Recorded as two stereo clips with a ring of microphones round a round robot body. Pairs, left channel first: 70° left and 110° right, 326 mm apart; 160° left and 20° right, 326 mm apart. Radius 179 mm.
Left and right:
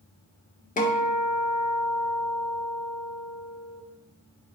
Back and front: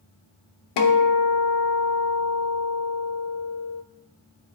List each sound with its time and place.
0.8 s a guitar: 135° left, 1.0 m